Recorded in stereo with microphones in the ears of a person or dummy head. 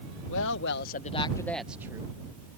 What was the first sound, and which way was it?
A woman speaking, 75° left (ahead or behind).